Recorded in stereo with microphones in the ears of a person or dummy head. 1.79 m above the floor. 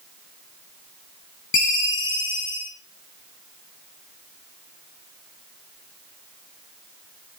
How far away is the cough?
No cough in this recording.